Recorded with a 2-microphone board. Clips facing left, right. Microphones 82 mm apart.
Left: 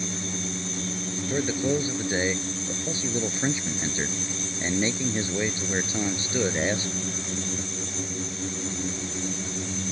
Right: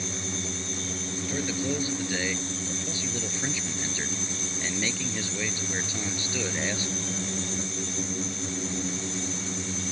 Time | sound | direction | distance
1.3 | a man speaking | 25° left (ahead or behind) | ?